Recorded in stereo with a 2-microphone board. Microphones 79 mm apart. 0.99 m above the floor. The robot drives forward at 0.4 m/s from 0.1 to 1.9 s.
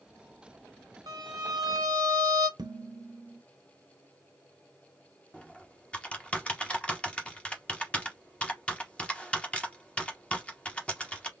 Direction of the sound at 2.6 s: 60° right (ahead or behind).